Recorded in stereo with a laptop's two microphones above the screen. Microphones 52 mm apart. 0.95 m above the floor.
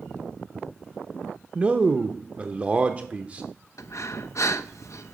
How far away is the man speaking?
About 0.8 m.